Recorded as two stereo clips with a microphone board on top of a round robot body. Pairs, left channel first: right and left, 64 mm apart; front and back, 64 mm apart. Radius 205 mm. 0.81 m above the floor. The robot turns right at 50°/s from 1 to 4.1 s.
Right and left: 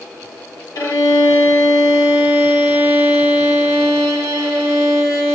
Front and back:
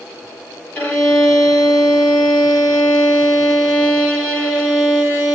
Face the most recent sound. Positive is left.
turn(degrees=95)